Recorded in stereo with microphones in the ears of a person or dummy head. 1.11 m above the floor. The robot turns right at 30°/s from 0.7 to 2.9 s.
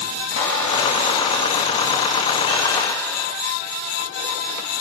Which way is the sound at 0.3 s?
95° left.